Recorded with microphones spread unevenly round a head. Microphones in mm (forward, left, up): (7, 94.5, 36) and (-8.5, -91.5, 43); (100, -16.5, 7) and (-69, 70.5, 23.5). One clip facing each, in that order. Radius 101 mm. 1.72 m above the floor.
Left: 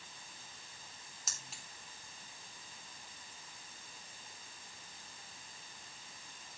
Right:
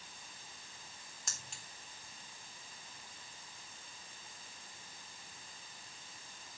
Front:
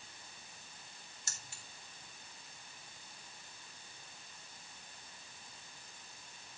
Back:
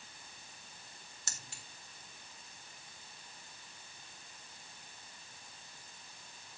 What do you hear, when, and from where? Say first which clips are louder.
1.3 s keys jangling: right 1 dB, back 4 dB; 175° left, 2 m